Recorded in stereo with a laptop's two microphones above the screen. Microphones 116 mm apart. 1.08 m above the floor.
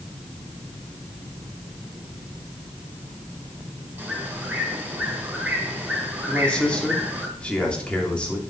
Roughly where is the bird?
Centre.